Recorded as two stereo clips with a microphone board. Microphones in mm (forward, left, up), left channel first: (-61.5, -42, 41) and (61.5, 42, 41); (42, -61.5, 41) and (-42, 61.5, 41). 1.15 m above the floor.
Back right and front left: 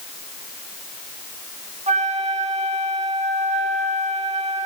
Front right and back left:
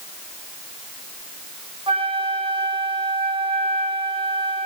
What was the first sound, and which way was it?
A flute, 70° left.